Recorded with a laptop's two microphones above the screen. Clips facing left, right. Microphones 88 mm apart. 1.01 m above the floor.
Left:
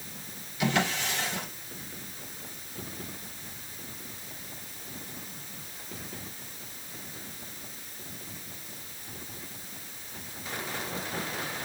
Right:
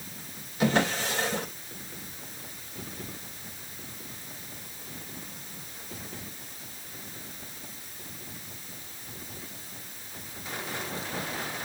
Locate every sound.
0.6 s a drawer: 35° right (ahead or behind), 2.5 m